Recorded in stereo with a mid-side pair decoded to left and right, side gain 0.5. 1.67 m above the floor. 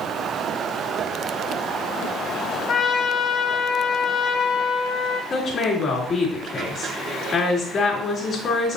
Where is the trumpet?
70° left, 2.5 m.